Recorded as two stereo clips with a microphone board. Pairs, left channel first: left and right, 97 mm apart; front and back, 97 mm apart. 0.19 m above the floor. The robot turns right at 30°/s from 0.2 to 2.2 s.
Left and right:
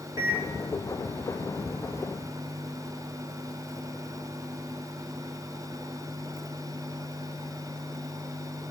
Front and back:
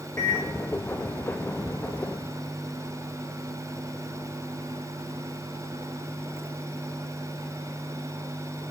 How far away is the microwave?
About 1.3 m.